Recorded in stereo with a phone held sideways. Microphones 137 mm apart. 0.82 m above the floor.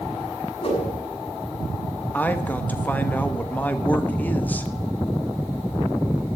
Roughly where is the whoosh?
Left.